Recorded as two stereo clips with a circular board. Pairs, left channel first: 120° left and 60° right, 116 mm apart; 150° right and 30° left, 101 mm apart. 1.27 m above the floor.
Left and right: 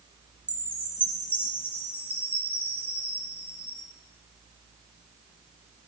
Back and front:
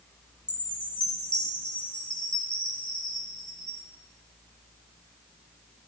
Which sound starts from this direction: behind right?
A chime, at 0.5 s.